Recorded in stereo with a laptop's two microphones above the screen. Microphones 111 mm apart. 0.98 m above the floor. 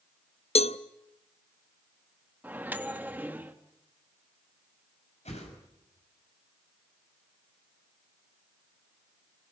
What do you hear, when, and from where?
0.6 s a cowbell: 65° left (ahead or behind), 0.7 m
2.4 s a microwave: 15° right (ahead or behind), 0.9 m
5.2 s a whoosh: 85° left, 6 m